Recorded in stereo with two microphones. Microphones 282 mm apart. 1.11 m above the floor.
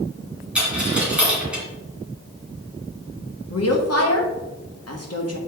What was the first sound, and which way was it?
A dropped coin, 5° right (ahead or behind).